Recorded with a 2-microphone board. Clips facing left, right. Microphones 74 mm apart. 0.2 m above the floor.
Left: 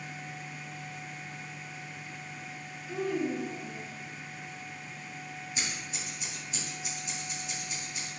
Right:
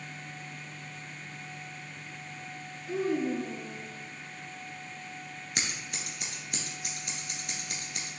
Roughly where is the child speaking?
Right.